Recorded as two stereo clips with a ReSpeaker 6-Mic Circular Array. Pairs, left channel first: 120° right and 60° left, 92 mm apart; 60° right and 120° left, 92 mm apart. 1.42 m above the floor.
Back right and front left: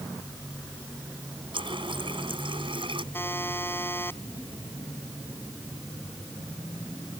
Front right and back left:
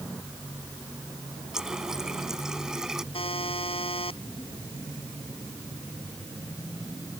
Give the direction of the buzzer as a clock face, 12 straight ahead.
2 o'clock.